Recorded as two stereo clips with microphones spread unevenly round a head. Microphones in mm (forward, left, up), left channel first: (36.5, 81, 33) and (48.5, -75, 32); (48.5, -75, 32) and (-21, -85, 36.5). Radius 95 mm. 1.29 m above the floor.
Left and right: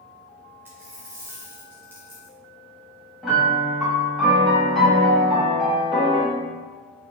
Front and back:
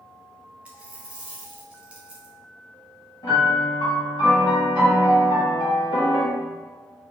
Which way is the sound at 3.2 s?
5° left.